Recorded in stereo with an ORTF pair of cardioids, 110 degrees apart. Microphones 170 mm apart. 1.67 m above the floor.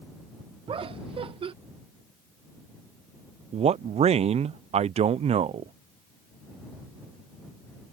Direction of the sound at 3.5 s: 40° right.